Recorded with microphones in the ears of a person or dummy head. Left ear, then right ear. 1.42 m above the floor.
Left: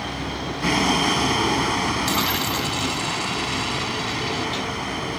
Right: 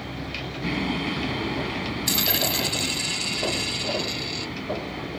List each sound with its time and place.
0.0 s a vehicle: 45° left (ahead or behind)
2.1 s a dropped coin: 10° right (ahead or behind)